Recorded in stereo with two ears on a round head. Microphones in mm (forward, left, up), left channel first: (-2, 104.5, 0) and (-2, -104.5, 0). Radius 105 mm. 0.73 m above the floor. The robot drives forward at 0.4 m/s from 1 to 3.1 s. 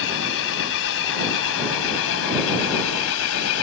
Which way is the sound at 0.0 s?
60° left (ahead or behind).